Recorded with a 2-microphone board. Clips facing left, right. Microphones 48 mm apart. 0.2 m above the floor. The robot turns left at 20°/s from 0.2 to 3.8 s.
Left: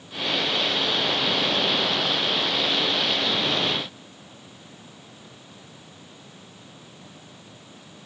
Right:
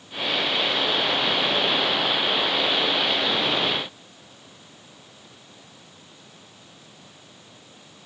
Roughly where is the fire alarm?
I don't hear a fire alarm.